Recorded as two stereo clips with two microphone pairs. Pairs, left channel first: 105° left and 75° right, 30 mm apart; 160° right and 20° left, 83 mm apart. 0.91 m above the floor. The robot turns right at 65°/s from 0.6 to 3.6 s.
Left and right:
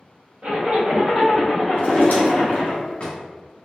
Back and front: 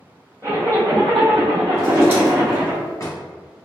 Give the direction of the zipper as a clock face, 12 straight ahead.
1 o'clock.